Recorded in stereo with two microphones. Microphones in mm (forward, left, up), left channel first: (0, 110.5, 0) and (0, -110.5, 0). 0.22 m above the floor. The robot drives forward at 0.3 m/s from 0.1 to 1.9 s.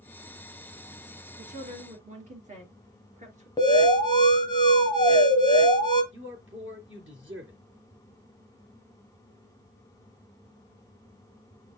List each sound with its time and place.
1.4 s a woman speaking: 35° right (ahead or behind), 3.5 m
3.6 s an alarm: 20° left (ahead or behind), 2 m
6.1 s a man speaking: 60° right (ahead or behind), 4 m